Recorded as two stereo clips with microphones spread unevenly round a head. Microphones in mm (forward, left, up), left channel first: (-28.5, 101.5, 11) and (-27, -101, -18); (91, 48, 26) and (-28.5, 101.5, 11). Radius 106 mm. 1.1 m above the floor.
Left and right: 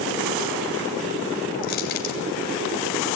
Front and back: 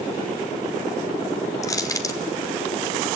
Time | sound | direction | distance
1.6 | crushing | 40° left | 2.5 m